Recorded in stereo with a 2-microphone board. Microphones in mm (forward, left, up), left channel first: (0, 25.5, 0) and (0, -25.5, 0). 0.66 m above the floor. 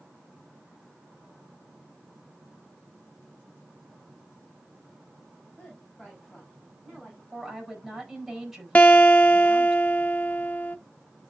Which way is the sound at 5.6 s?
25° left (ahead or behind).